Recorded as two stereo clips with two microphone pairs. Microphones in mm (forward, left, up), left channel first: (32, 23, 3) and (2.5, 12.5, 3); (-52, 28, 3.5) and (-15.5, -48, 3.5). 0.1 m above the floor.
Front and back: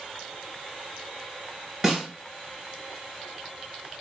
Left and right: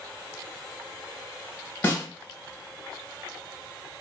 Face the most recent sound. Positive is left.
turn(degrees=140)